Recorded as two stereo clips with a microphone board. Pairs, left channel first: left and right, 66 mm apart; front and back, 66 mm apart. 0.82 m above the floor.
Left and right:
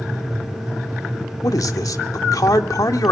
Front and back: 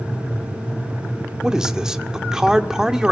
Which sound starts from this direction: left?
A man speaking, at 1.4 s.